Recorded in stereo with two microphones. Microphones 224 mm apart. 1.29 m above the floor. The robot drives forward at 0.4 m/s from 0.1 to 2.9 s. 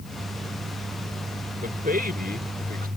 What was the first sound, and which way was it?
A man speaking, 40° right (ahead or behind).